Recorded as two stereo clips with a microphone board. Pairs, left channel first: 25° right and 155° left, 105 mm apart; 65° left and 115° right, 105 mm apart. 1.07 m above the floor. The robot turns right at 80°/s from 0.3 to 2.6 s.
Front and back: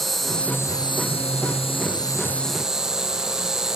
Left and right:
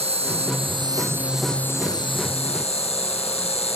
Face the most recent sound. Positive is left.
turn(degrees=70)